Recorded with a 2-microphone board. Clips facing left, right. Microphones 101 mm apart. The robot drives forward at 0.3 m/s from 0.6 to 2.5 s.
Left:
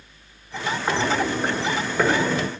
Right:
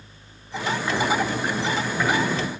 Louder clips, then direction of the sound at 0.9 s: Left 1 dB; 40° left (ahead or behind).